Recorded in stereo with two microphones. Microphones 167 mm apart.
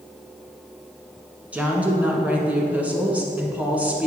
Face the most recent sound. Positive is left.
turn(degrees=-10)  # may be behind; listen again after turning